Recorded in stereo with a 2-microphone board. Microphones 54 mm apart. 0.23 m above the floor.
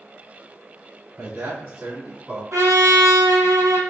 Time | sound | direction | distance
1.2 | a man speaking | 45° right (ahead or behind) | 2.0 m
2.5 | a trumpet | 85° right | 1.3 m